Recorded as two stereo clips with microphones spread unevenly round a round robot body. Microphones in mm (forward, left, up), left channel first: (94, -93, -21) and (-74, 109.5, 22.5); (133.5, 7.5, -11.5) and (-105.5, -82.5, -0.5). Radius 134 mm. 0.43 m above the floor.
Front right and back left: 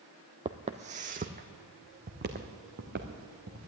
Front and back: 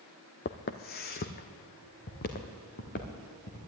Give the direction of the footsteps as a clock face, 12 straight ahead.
10 o'clock.